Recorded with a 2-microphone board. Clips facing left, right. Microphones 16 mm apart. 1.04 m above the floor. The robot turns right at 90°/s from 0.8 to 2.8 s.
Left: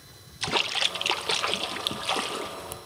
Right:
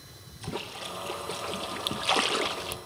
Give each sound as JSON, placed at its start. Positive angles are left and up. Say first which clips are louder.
{"t": 0.4, "sound": "a splash", "louder": "left 11 dB", "azimuth_deg": 75, "distance_m": 0.6}